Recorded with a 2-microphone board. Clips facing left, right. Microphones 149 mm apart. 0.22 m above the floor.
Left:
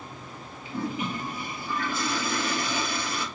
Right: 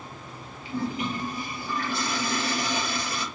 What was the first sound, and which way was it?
A toilet flushing, 40° right (ahead or behind).